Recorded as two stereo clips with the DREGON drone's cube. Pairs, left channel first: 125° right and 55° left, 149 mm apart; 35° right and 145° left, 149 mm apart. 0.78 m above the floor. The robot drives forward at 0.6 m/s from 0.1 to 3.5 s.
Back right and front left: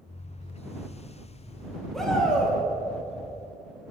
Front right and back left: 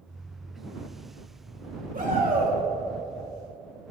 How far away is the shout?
About 3 m.